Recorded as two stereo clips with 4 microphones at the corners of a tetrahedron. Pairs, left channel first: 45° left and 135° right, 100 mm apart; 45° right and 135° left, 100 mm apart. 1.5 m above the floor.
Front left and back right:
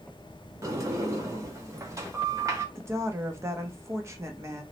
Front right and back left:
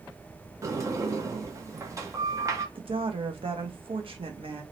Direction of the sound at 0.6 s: Straight behind.